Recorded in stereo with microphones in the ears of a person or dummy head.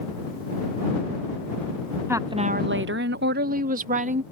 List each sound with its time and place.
2.1 s a woman speaking: 20° right (ahead or behind); by 4.2 s 40° right (ahead or behind)